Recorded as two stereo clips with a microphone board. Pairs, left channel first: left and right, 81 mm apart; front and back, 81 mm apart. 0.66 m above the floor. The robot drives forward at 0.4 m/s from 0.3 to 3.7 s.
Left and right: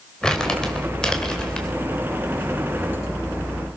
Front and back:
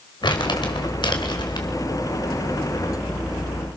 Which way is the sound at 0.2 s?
10° left.